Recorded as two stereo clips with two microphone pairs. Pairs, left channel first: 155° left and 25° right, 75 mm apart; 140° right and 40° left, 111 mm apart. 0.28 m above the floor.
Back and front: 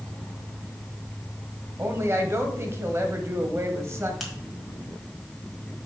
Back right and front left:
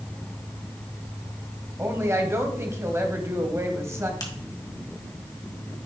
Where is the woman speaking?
5° right, 1.1 m.